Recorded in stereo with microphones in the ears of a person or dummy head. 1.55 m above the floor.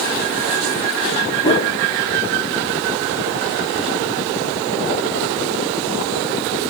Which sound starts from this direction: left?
A whoosh, at 1.4 s.